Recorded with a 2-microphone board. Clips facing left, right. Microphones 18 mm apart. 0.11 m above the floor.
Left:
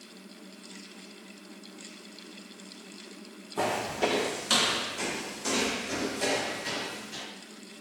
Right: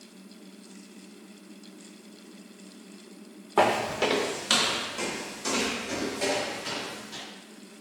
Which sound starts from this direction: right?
Footsteps, at 3.6 s.